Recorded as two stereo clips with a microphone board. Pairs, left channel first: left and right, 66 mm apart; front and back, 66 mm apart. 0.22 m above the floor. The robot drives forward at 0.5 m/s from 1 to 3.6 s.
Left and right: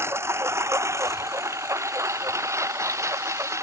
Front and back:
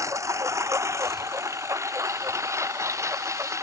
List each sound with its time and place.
0.0 s a lawn mower: 140° right; by 3.6 s 135° right